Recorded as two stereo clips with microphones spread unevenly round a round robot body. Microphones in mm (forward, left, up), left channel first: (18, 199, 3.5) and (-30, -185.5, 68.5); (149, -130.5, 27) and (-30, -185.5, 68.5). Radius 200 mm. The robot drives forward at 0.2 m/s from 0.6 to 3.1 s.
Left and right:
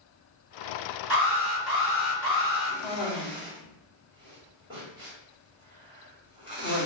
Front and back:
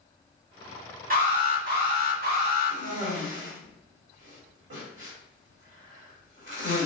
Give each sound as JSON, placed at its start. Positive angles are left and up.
{"t": 1.1, "sound": "an alarm", "azimuth_deg": -145, "distance_m": 2.0}
{"t": 2.7, "sound": "a cough", "azimuth_deg": 180, "distance_m": 1.4}